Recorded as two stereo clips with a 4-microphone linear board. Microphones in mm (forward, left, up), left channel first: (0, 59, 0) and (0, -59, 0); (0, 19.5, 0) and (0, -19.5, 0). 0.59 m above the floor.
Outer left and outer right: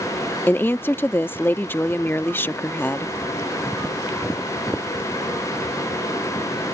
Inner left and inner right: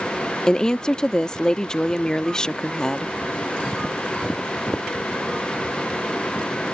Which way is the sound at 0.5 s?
20° left (ahead or behind).